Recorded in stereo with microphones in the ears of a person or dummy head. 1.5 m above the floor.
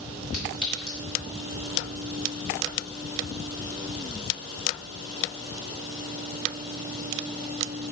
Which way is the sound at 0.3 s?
55° left (ahead or behind).